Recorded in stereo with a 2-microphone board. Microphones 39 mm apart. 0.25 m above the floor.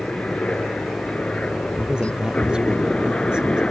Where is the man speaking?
20° right (ahead or behind).